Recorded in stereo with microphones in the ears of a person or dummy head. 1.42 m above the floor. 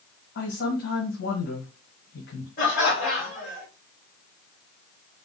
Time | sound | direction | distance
0.3 | a man speaking | 50° left (ahead or behind) | 1.6 m
2.6 | laughter | 40° left (ahead or behind) | 1.8 m